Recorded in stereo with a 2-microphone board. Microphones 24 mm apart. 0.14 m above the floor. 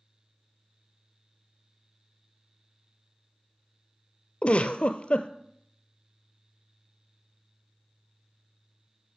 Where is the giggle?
50° left (ahead or behind), 0.6 m.